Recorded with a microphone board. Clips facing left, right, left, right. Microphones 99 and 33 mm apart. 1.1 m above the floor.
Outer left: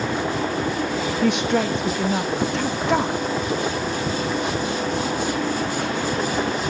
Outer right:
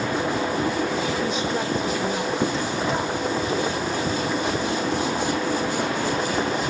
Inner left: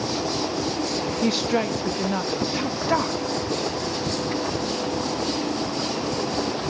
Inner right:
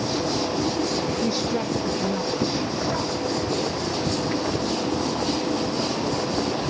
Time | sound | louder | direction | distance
1.2 | a woman speaking | outer left 5 dB, inner left 2 dB | 65° left (ahead or behind) | 1.9 m